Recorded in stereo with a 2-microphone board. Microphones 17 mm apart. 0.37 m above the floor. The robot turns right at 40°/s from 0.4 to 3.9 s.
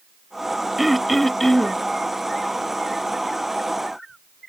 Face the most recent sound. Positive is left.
turn(degrees=120)